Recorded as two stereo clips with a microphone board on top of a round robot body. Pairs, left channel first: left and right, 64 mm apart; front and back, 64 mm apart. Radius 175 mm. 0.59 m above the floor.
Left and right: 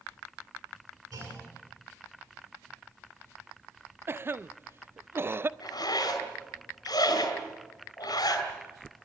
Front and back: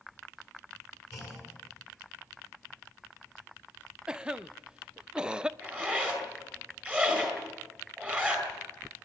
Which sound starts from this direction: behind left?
A zipper, at 5.6 s.